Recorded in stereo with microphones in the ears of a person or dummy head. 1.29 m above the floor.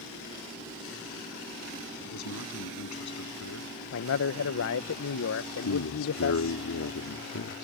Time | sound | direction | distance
2.0 | a man speaking | 85° left | ?
3.9 | a man speaking | 60° left (ahead or behind) | ?
5.7 | a man speaking | 75° left (ahead or behind) | ?